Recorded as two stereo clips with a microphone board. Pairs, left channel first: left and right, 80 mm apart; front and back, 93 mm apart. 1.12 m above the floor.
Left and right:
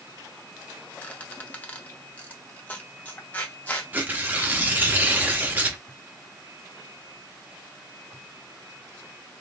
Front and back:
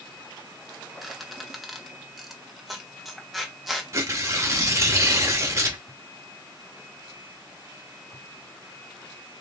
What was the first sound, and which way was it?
A squeak, 95° left.